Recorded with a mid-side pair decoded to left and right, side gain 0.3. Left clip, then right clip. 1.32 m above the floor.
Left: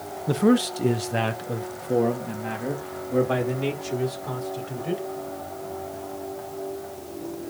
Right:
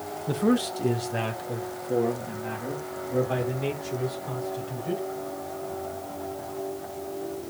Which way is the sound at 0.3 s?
40° left.